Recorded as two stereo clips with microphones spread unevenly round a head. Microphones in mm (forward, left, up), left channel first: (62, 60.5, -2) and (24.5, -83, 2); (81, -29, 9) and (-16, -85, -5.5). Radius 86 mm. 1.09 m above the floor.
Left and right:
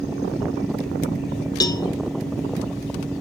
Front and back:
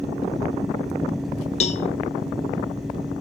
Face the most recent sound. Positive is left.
turn(degrees=10)